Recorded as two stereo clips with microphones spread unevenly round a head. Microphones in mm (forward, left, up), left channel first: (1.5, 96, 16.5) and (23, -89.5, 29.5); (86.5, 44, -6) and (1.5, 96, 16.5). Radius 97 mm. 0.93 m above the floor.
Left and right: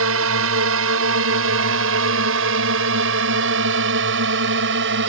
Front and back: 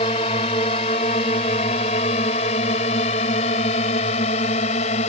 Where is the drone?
85° right; by 5.1 s 60° right.